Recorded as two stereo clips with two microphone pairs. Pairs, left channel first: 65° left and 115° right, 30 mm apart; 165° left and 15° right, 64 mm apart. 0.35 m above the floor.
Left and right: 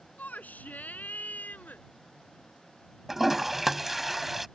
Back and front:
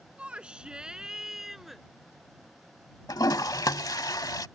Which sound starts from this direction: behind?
A toilet flushing, at 3.1 s.